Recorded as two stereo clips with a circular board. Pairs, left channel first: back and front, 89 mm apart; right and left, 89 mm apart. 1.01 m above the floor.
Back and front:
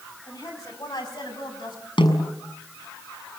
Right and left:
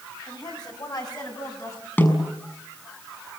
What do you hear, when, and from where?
0.3 s a woman speaking: 130° right, 6.5 m; by 1.9 s 140° right, 7.5 m
2.0 s a snare drum: 155° right, 6 m